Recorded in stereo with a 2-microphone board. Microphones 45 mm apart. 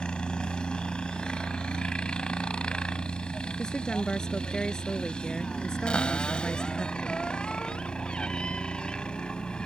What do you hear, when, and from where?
0.0 s a helicopter: 20° left (ahead or behind)
3.6 s a woman speaking: 15° left (ahead or behind)
5.9 s a cupboard door: 25° left (ahead or behind)